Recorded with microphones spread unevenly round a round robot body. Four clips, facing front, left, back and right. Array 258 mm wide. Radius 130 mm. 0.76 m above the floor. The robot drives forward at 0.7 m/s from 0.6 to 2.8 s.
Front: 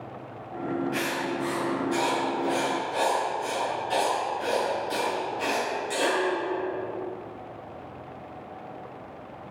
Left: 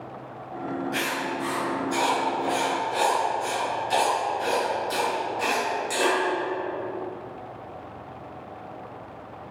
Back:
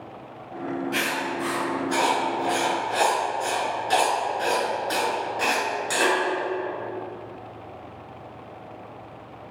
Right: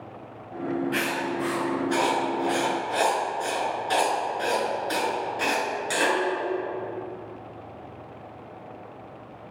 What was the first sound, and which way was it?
Writing, 120° right.